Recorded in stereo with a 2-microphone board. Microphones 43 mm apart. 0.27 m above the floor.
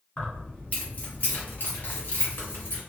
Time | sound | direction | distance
0.2 | keys jangling | 30° left (ahead or behind) | 1.4 m